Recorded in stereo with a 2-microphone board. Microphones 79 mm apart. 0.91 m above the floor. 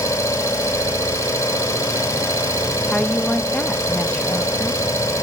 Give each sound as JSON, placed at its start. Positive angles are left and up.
{"t": 0.0, "sound": "an engine running", "side_deg": 40, "distance_m": 3.0}
{"t": 2.9, "sound": "a woman speaking", "side_deg": 15, "distance_m": 0.6}